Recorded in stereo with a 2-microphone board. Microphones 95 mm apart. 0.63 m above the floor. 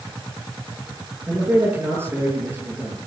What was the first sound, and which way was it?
A man speaking, 20° right (ahead or behind).